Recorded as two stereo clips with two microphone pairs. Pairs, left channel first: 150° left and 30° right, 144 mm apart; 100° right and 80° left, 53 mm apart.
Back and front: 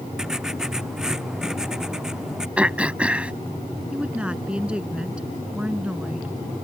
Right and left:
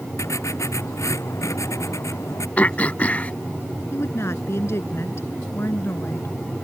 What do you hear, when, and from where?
0.2 s writing: 120° right
2.6 s throat clearing: 105° right
3.9 s a woman speaking: 115° right